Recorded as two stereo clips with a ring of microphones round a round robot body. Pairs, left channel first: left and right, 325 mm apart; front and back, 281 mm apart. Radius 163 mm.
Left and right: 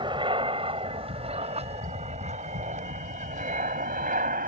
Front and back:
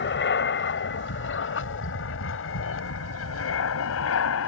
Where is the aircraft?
20° right; by 4.5 s 30° right.